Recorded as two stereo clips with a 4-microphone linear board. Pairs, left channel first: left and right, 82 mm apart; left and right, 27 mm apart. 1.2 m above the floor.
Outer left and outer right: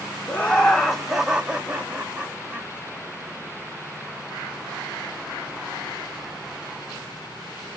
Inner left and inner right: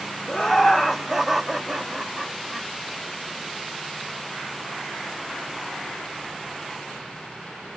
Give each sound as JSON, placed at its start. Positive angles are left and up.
{"t": 0.3, "sound": "laughter", "side_deg": 15, "distance_m": 0.6}